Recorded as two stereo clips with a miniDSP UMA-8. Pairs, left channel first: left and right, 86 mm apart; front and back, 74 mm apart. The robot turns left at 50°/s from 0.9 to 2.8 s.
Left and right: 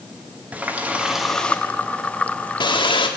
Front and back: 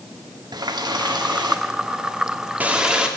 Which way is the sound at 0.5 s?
165° right.